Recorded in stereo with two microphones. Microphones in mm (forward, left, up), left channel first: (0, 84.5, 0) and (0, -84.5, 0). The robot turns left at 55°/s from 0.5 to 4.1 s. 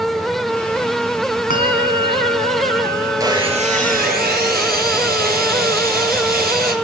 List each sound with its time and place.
1.5 s a bell: 110° left, 3 m; by 4.2 s 35° right, 3 m
3.2 s sawing: 20° right, 5.5 m; by 6.7 s 70° right, 5.5 m